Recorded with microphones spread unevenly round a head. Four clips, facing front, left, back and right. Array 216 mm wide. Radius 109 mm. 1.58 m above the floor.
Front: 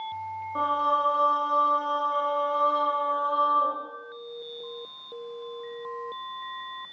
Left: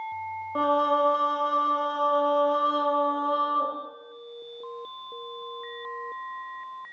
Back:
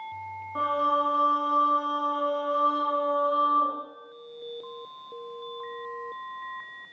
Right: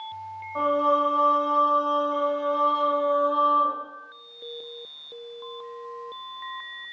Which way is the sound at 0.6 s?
90° left.